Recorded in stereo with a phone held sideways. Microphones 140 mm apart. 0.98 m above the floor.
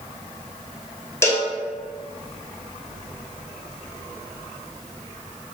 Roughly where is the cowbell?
Centre.